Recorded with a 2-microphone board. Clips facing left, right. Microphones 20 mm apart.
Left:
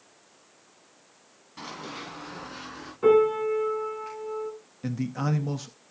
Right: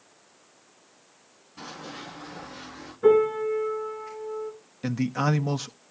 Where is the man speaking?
25° right (ahead or behind), 0.6 m.